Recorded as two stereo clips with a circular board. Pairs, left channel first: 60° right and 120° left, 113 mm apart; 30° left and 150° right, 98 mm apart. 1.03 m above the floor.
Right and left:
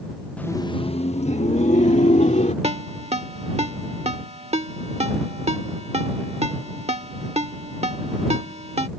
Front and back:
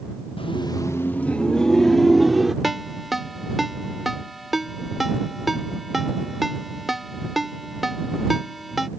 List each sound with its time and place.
0.4 s laughter: 20° left; by 2.5 s 60° right
2.6 s a ringtone: 120° left